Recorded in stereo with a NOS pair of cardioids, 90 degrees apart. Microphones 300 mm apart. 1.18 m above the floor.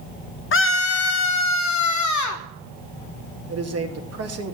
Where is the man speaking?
55° right, 2.5 m.